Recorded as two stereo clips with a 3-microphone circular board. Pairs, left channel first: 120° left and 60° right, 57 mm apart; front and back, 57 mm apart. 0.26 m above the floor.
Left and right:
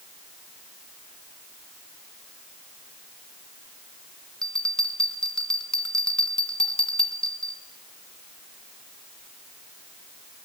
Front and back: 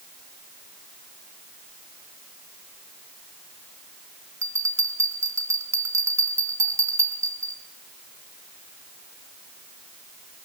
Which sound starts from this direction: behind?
A bell, at 4.4 s.